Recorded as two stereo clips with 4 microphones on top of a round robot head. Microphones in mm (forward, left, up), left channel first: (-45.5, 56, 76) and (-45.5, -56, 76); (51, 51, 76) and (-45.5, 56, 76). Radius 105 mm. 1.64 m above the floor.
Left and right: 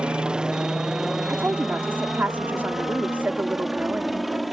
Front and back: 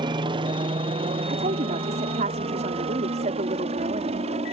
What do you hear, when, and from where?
0.0 s a helicopter: 170° right; by 4.5 s straight behind
1.3 s a woman speaking: 165° right